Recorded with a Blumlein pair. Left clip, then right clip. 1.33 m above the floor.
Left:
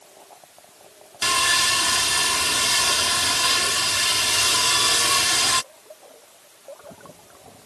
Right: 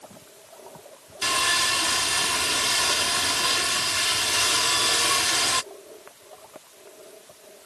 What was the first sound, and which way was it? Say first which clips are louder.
Sawing: left 3 dB; 10° left.